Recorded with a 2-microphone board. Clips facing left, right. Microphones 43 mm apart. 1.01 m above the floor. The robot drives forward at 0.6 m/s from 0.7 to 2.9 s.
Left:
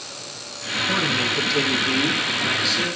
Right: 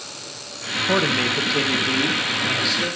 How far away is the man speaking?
About 0.5 m.